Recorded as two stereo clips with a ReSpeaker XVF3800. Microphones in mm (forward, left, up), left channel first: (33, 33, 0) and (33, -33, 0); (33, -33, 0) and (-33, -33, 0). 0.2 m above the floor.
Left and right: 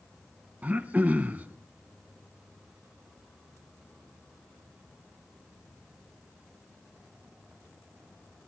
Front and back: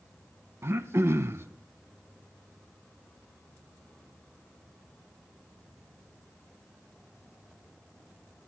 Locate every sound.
0.6 s throat clearing: 150° right, 0.6 m